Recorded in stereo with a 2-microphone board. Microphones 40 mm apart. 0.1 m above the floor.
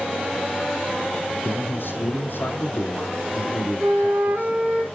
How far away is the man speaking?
About 2.5 m.